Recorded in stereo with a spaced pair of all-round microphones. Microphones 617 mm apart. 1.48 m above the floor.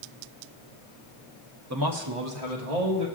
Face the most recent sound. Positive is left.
turn(degrees=-85)